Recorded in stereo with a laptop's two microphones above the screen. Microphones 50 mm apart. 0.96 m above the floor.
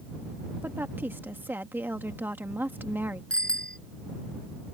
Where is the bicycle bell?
20° left (ahead or behind).